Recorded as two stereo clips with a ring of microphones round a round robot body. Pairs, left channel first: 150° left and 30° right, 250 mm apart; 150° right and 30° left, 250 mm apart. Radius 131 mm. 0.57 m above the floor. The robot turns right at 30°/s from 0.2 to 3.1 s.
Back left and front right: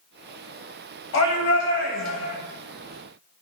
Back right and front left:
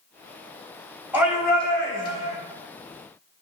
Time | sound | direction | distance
1.1 | a shout | 110° left | 3.5 m